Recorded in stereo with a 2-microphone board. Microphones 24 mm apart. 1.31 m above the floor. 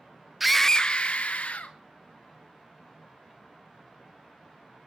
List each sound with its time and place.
0.4 s a scream: 10° right (ahead or behind), 0.6 m; by 1.8 s 70° left (ahead or behind), 1.5 m